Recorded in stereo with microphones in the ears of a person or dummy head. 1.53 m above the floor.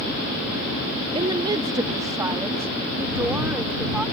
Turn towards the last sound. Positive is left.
turn(degrees=-5)  # may be behind; listen again after turning